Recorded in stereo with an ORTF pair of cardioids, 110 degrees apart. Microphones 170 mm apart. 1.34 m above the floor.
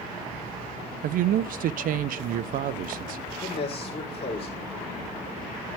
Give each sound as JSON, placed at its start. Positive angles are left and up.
{"t": 1.0, "sound": "a man speaking", "azimuth_deg": -55, "distance_m": 0.6}
{"t": 3.4, "sound": "a man speaking", "azimuth_deg": 35, "distance_m": 3.5}